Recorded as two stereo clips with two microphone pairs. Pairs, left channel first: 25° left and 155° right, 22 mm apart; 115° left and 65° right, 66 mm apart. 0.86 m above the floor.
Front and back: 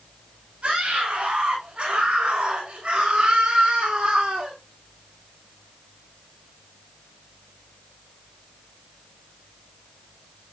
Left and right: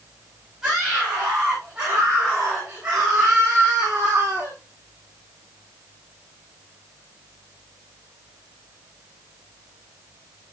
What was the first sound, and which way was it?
A scream, 150° right.